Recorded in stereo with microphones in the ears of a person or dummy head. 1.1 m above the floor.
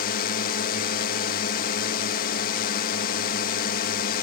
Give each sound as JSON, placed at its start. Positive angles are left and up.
{"t": 0.0, "sound": "a drone", "side_deg": 45}